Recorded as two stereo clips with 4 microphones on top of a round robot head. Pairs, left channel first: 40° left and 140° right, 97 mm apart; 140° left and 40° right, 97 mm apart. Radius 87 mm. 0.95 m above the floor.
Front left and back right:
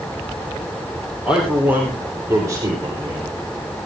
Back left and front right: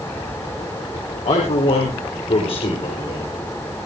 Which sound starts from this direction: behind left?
A man speaking, at 1.2 s.